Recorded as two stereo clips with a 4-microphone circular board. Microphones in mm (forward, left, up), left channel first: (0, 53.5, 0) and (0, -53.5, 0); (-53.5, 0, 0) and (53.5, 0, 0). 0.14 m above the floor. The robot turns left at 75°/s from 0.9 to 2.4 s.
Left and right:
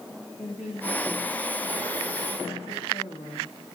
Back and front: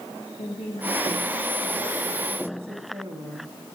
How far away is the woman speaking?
About 6.5 m.